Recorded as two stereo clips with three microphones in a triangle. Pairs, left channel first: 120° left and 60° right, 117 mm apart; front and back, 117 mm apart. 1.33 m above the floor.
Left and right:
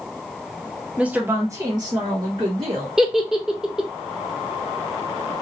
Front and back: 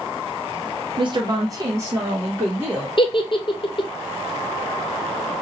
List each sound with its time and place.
1.0 s a woman speaking: 140° right, 0.7 m; by 2.9 s 100° right, 1.4 m
3.0 s a giggle: 25° left, 0.7 m